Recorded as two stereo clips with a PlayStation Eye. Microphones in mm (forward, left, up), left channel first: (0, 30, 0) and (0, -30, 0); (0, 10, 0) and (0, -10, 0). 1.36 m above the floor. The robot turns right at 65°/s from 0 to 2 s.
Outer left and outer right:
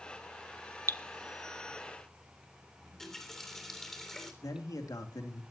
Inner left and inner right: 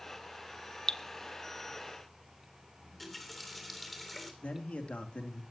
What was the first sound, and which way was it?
Dripping, 40° left (ahead or behind).